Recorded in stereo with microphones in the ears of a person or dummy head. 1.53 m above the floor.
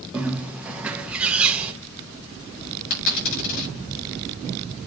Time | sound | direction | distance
0.1 | a bird | 10° right (ahead or behind) | 1.2 m
2.9 | a dropped coin | 65° left (ahead or behind) | 7.5 m